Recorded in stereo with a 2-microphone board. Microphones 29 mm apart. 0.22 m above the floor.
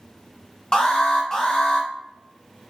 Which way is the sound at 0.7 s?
25° left (ahead or behind).